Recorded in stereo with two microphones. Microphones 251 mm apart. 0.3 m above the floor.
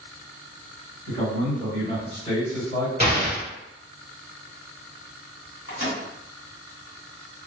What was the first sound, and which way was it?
A man speaking, 30° left (ahead or behind).